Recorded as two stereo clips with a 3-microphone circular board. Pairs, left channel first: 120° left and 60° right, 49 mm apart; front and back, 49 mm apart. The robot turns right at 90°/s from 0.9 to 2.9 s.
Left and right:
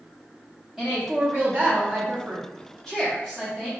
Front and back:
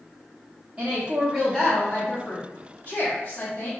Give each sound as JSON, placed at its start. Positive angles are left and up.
{"t": 0.8, "sound": "a woman speaking", "azimuth_deg": -140, "distance_m": 0.7}